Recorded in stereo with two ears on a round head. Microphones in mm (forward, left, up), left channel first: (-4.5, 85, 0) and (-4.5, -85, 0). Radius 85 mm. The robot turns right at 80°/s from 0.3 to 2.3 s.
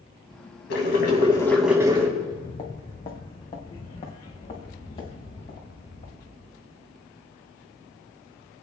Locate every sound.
0.7 s boiling: 105° left, 3 m; by 2.1 s 145° right, 3 m
2.2 s footsteps: 35° left (ahead or behind), 1.9 m